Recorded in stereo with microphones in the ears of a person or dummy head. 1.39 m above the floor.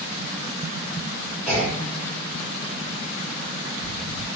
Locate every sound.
1.5 s a clunk: 10° left (ahead or behind), 1.2 m